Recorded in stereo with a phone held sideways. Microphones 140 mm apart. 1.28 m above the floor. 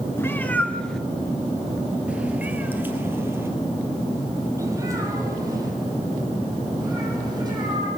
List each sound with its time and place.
0.2 s a cat meowing: 15° left (ahead or behind), 1.6 m; by 7.9 s 30° right (ahead or behind), 5.5 m